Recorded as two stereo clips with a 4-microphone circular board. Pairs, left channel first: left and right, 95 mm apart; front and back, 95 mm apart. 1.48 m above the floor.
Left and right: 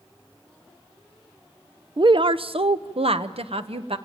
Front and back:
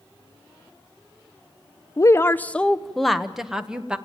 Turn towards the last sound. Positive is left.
turn(degrees=-100)